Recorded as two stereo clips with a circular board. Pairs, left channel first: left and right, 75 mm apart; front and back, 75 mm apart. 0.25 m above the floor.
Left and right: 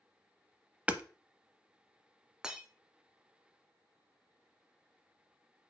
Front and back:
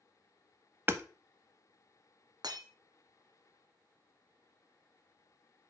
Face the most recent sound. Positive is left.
turn(degrees=-170)